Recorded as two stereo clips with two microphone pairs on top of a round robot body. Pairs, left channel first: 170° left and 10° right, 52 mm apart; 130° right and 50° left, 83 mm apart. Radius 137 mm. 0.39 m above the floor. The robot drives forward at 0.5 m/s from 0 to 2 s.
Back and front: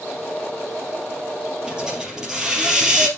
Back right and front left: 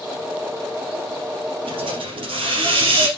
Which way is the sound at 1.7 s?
65° left.